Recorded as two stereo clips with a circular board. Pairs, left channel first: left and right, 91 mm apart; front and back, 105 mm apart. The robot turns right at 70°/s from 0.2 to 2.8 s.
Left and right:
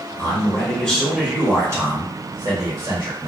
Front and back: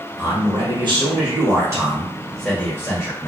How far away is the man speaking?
About 1.3 m.